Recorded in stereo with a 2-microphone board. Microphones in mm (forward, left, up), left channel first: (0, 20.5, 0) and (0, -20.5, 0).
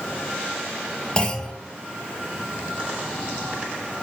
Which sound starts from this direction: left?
A clunk, at 1.2 s.